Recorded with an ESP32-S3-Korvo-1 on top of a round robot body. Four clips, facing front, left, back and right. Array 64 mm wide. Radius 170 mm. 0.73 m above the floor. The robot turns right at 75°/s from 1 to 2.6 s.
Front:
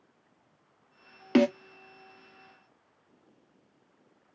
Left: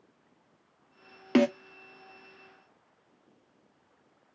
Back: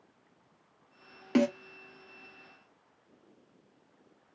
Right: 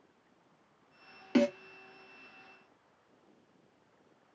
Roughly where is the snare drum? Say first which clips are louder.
Left 4 dB, front 4 dB; ahead left.